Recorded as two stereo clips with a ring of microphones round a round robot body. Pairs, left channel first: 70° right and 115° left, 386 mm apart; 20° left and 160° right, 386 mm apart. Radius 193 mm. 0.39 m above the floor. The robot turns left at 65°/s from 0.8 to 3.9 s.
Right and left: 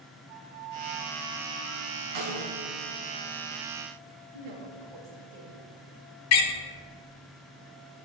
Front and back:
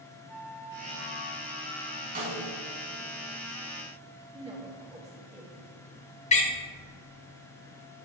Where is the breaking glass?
No breaking glass in this recording.